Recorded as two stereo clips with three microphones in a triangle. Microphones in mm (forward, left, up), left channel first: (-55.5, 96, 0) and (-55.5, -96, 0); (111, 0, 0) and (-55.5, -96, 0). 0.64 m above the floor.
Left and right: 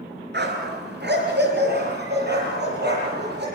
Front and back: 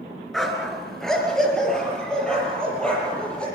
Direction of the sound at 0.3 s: 60° right.